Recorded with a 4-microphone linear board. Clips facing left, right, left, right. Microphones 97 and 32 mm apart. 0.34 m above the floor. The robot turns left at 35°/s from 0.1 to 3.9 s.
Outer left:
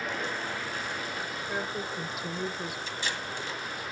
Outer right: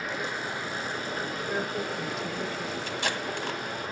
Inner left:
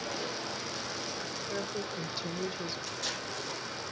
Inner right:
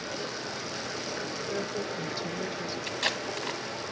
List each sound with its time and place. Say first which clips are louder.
0.0 s running water: outer right 1 dB, inner right 1 dB; 5° right, 5 m; by 3.9 s 140° right, 5 m
1.5 s a woman speaking: outer right 3 dB, inner right 3 dB; 5° right (ahead or behind), 1.0 m; by 2.8 s 15° left (ahead or behind), 1.0 m
2.9 s tape being pulled: outer right 4 dB, inner right 6 dB; 55° right (ahead or behind), 2 m; by 3.6 s 65° right (ahead or behind), 2 m